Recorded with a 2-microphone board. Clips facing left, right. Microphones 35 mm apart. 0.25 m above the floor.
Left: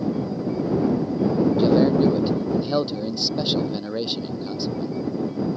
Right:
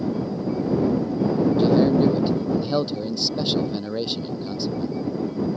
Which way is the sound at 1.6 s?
5° left (ahead or behind).